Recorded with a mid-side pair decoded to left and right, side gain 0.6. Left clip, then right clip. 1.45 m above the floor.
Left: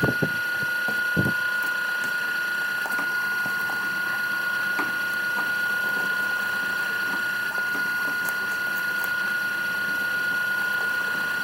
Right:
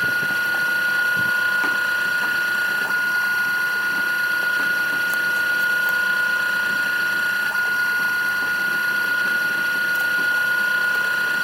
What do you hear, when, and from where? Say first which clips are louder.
0.0 s a machine running: right 4 dB; 25° right